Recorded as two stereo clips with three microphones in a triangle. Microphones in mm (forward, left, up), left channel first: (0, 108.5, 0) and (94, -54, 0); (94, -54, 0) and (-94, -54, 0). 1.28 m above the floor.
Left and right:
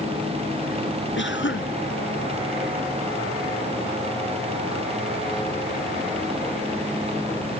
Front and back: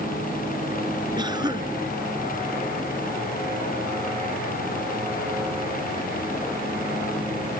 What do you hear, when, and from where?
1.2 s a cough: 110° left